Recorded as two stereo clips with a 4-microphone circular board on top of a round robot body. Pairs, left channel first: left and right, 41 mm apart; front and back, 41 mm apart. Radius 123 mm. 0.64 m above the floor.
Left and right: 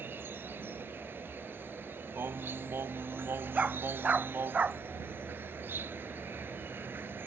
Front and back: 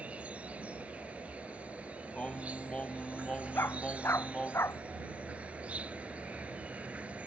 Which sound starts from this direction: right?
Singing, at 2.1 s.